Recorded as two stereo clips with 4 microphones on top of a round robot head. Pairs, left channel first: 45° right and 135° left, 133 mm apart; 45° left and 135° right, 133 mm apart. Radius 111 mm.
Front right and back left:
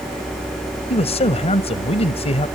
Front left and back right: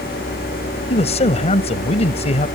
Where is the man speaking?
Straight ahead.